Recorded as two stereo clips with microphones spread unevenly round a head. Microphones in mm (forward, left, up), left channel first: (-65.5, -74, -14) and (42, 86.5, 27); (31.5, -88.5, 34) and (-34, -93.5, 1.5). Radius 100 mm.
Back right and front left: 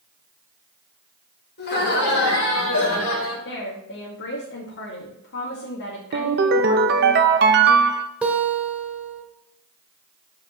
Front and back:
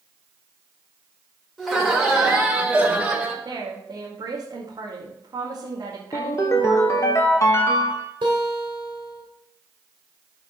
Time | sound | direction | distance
1.6 | laughter | 80° right | 4.5 m
3.5 | a woman speaking | 155° right | 2.5 m
6.1 | a ringtone | 35° left | 0.9 m
8.2 | a guitar | 135° left | 2 m